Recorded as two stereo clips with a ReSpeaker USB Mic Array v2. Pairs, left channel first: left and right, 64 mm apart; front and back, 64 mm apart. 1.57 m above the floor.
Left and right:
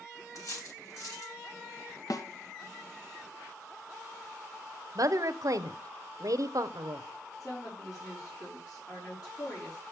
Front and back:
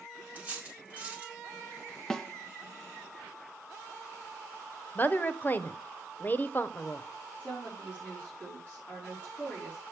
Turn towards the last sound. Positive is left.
turn(degrees=65)